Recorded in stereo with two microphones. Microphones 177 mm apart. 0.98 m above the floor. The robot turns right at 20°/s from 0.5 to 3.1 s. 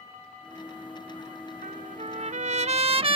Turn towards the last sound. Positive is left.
turn(degrees=-35)  # may be behind; listen again after turning